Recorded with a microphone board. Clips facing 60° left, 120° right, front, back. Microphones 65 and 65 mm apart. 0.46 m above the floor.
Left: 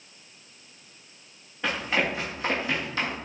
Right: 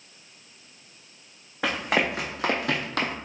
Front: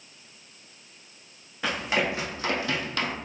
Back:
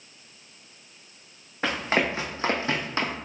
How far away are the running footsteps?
About 1.7 m.